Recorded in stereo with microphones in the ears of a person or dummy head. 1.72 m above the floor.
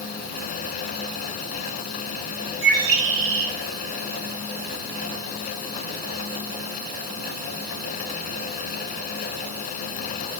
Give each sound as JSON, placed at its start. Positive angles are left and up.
{"t": 2.6, "sound": "a bird", "side_deg": -80, "distance_m": 2.5}